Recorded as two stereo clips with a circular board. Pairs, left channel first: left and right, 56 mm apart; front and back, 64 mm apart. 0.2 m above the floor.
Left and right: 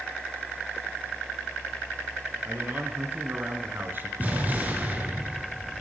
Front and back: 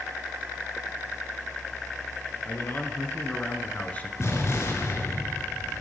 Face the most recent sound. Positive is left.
turn(degrees=-35)